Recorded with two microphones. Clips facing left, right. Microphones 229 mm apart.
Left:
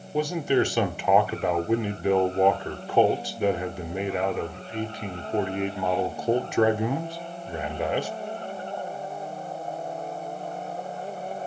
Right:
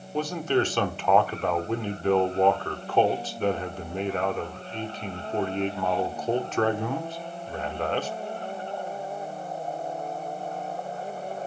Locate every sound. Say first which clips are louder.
0.1 s a man speaking: left 2 dB; 10° left (ahead or behind), 0.9 m